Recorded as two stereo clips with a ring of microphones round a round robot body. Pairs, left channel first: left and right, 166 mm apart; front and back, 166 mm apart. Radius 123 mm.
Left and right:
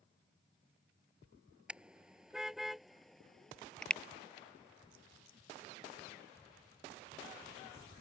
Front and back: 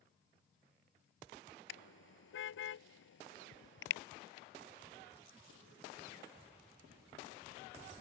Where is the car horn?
5° right; by 4.0 s 5° left.